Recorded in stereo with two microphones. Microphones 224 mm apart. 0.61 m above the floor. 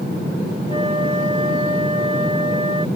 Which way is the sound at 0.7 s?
25° right (ahead or behind).